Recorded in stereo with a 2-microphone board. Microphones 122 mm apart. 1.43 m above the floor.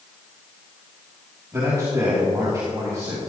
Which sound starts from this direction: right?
A man speaking, at 1.5 s.